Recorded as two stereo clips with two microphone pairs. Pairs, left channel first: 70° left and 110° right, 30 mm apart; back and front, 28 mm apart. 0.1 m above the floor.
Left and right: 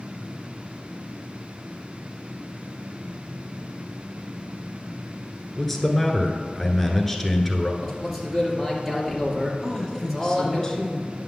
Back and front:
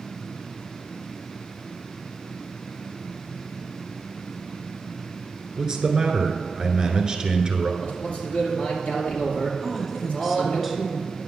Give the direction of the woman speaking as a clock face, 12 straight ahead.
9 o'clock.